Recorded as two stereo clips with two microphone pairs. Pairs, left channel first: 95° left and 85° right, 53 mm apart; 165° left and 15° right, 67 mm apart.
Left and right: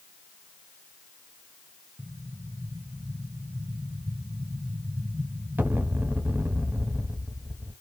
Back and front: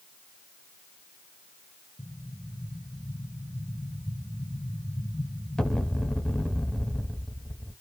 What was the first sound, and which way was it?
An explosion, 120° right.